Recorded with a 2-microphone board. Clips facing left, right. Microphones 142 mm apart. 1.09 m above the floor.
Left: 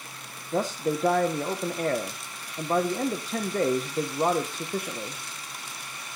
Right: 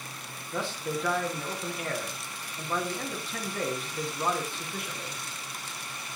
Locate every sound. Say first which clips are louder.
0.5 s a man speaking: left 6 dB; 40° left (ahead or behind), 0.9 m